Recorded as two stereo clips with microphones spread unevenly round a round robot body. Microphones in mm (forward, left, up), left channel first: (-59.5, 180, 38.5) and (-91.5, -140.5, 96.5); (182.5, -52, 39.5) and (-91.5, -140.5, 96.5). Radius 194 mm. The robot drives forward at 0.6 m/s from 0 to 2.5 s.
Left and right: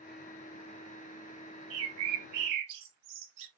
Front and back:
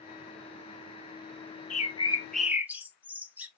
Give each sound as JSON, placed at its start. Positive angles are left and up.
{"t": 1.7, "sound": "a bird", "azimuth_deg": -40, "distance_m": 1.0}